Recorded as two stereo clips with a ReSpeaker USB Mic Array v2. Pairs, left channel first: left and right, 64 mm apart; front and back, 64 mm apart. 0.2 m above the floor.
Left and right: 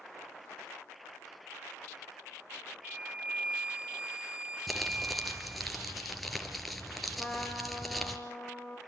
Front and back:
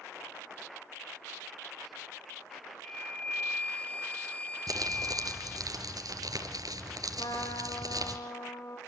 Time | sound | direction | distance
2.8 | a flute | 35° right | 0.6 m
4.7 | crumpling | straight behind | 4 m
7.2 | a trumpet | 10° left | 9.5 m